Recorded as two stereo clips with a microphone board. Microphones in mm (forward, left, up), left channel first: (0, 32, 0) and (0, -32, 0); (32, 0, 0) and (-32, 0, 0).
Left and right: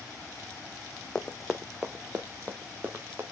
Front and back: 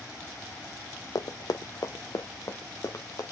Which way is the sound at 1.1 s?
10° left.